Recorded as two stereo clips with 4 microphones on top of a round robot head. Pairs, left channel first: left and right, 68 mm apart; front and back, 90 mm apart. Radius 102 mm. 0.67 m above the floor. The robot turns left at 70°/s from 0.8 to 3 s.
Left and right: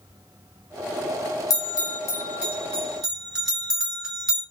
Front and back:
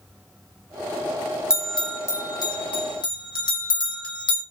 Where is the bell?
95° left, 1.6 m; by 4.4 s 10° right, 1.6 m.